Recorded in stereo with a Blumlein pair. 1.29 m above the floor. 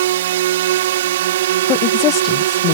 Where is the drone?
55° right.